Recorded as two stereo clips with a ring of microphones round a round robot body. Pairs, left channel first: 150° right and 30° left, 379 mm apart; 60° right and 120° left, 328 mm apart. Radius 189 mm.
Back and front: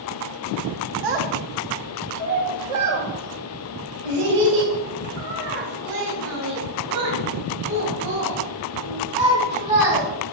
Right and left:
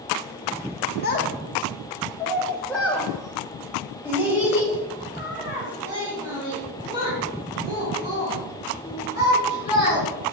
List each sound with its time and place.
1.0 s a child speaking: straight ahead, 1.2 m; by 10.0 s 50° left, 6.5 m